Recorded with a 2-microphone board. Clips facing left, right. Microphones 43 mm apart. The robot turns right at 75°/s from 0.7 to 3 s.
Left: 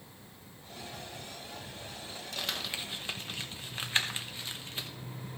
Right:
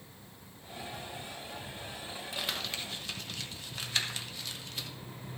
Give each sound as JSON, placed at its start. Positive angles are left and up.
{"t": 2.4, "sound": "crumpling", "side_deg": -10, "distance_m": 1.0}